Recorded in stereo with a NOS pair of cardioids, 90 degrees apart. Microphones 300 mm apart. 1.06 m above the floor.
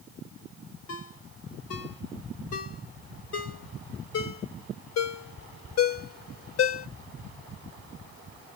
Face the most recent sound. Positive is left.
turn(degrees=55)